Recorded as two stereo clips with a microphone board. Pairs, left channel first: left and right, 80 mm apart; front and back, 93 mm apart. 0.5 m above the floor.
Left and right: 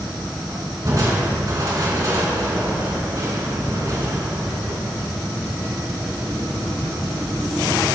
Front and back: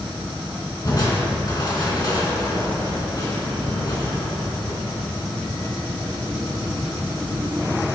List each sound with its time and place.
0.8 s crushing: 45° right, 3.5 m